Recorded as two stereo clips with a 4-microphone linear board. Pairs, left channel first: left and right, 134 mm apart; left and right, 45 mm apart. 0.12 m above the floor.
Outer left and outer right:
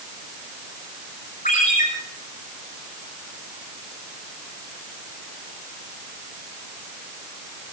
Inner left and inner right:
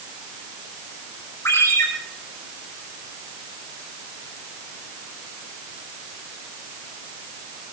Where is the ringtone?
75° left (ahead or behind), 7 m.